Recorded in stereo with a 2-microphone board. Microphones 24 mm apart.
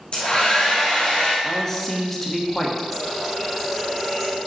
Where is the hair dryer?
50° left (ahead or behind), 1.8 m.